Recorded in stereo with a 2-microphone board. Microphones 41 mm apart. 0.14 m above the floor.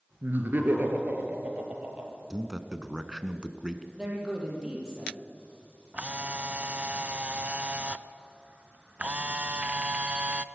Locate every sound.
0.2 s laughter: 50° right (ahead or behind), 3 m; by 2.2 s 30° right (ahead or behind), 4.5 m
2.3 s a man speaking: 15° right (ahead or behind), 1.1 m
4.0 s a man speaking: 20° right (ahead or behind), 4.5 m
5.9 s a camera shutter: 30° right (ahead or behind), 0.6 m